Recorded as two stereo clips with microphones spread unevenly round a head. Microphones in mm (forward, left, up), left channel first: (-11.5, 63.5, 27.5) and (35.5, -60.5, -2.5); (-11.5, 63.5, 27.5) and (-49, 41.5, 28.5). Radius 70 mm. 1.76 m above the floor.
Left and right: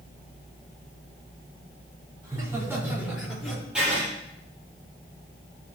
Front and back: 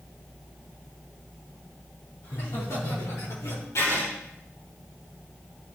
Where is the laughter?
Straight ahead, 5 m; by 3.6 s 25° left, 4 m.